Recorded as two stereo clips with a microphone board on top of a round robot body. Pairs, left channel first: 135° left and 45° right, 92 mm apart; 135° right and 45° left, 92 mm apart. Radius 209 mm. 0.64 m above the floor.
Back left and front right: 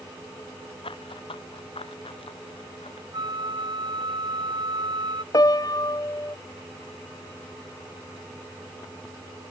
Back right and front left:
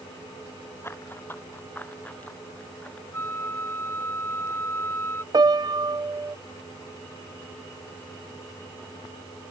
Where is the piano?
85° left.